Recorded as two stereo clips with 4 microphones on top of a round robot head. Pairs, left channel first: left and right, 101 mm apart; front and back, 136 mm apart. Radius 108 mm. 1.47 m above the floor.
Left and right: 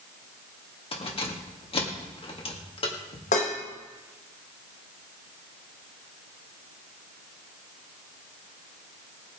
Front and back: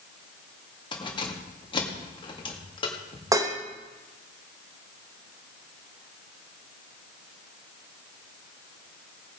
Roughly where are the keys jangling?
Ahead left.